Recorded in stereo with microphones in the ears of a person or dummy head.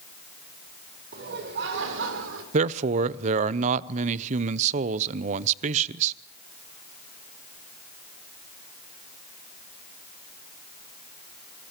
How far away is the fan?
I don't hear a fan.